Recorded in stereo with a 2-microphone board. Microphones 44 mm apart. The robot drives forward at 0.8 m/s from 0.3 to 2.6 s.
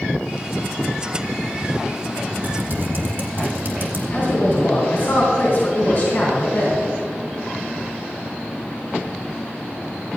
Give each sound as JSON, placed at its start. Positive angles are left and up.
{"t": 2.4, "sound": "typing on a keyboard", "side_deg": -45, "distance_m": 2.0}
{"t": 4.1, "sound": "a man speaking", "side_deg": 45, "distance_m": 3.0}